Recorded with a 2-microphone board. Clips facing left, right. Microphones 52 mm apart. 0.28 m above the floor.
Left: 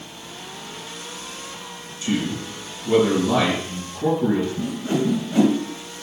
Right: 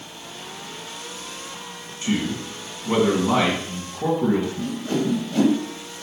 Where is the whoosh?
20° left (ahead or behind), 2.5 m.